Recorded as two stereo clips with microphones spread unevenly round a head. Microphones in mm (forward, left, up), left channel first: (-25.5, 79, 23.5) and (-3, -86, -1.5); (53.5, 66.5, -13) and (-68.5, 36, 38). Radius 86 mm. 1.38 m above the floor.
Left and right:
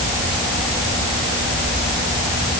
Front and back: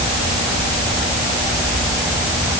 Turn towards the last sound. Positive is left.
No sound to turn to.